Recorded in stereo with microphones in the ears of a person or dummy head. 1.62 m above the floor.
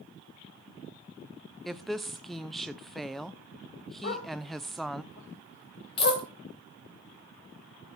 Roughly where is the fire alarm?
No fire alarm in this recording.